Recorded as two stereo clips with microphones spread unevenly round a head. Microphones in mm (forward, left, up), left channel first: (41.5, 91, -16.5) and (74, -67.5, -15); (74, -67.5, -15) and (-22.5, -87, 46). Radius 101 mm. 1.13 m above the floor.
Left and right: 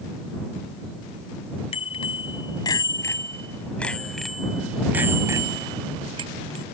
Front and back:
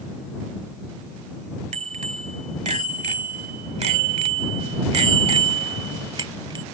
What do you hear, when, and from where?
1.7 s a bicycle bell: 165° left; by 6.7 s 140° right